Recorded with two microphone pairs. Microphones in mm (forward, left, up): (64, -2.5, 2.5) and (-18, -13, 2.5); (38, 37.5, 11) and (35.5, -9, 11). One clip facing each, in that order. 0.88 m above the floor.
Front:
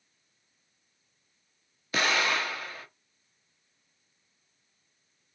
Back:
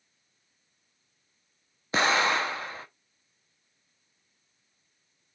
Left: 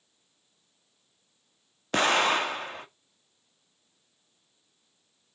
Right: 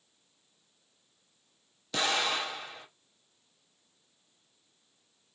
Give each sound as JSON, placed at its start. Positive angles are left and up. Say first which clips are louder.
{"t": 1.9, "sound": "an explosion", "louder": "back 3 dB, left 7 dB", "azimuth_deg": 125, "distance_m": 0.7}